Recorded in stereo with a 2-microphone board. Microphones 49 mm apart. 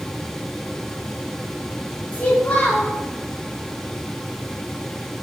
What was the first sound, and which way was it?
A child speaking, 25° left (ahead or behind).